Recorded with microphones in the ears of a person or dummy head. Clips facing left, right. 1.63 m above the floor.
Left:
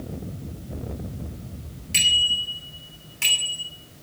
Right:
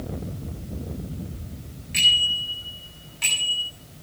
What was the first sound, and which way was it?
A bicycle bell, 45° left (ahead or behind).